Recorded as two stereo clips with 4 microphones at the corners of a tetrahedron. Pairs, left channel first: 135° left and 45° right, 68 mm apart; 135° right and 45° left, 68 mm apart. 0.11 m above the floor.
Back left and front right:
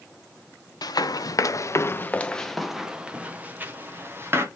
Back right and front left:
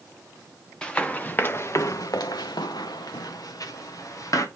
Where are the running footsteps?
145° left, 0.9 m; by 4.5 s 100° right, 1.5 m.